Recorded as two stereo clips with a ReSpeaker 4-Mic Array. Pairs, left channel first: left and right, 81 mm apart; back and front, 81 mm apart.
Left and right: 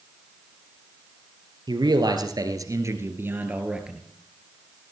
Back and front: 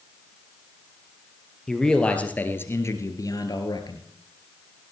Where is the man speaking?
95° right, 2.5 m; by 4.0 s 170° right, 2 m.